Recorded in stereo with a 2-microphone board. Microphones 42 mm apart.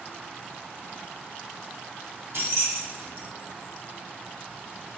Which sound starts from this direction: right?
Keys jangling, at 2.3 s.